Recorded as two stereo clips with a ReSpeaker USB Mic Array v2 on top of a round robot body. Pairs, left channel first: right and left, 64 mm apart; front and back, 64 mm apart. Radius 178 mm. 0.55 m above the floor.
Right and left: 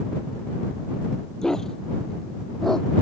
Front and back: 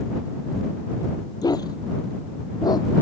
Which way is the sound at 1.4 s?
10° right.